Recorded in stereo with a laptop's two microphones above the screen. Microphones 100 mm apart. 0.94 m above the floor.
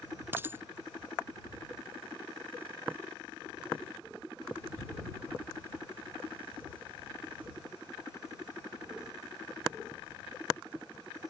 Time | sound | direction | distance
0.3 | a dropped coin | 20° right (ahead or behind) | ?